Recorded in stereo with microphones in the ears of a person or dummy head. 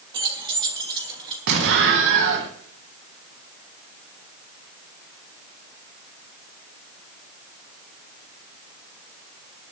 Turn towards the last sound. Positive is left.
turn(degrees=-65)  # may be behind; listen again after turning